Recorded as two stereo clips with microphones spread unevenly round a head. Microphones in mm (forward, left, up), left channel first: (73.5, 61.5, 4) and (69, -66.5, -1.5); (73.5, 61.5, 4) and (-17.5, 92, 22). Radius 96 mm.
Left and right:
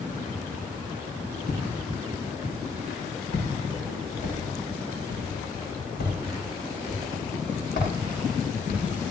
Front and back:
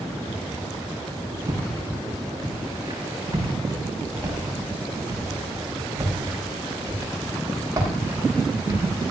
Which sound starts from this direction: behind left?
Footsteps, at 1.5 s.